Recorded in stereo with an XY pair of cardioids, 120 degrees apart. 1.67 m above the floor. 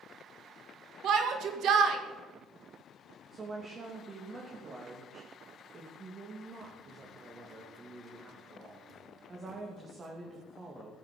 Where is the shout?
65° right, 2.5 m.